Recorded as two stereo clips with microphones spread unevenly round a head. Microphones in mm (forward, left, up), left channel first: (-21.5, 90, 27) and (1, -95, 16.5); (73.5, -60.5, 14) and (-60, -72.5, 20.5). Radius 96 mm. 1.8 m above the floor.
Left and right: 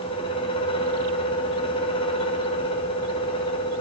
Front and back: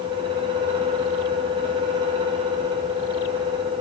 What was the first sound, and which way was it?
A fan, 145° left.